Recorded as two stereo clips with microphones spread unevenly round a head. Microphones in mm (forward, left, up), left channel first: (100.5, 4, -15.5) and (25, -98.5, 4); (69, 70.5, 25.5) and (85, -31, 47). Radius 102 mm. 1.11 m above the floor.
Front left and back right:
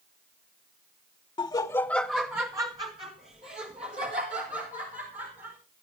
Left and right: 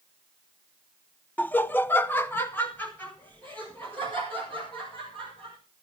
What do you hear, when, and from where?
1.4 s laughter: 50° left, 0.7 m; by 5.6 s straight behind, 3 m